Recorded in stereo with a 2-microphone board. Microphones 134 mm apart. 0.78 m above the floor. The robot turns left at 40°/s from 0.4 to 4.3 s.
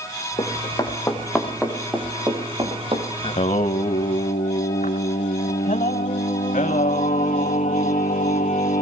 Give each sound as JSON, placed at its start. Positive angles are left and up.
{"t": 0.4, "sound": "running footsteps", "side_deg": 40, "distance_m": 4.5}
{"t": 3.2, "sound": "singing", "azimuth_deg": 130, "distance_m": 1.4}